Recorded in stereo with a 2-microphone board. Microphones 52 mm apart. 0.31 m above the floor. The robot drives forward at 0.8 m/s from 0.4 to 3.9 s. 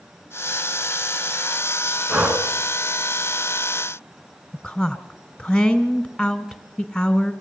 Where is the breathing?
30° right (ahead or behind), 2.0 m.